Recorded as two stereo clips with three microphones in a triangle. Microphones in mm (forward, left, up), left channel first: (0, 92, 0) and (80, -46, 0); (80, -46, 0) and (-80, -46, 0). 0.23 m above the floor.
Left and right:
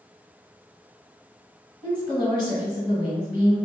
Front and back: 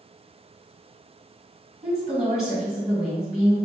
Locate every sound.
1.8 s a woman speaking: 95° left, 1.7 m